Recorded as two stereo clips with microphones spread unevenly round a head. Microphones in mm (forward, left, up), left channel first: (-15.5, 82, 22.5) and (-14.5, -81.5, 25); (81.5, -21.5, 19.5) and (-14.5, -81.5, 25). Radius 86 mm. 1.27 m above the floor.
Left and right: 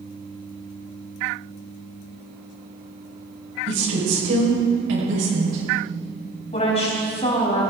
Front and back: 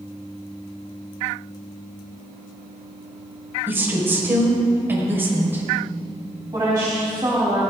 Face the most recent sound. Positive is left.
turn(degrees=140)